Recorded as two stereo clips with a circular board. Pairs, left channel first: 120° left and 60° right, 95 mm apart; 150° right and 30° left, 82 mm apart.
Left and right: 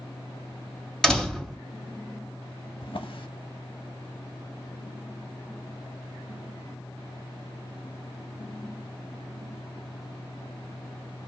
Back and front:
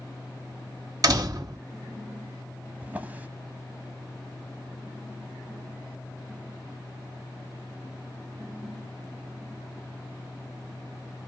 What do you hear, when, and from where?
1.0 s a door slam: 40° left, 1.5 m
2.8 s a drawer: 100° left, 0.6 m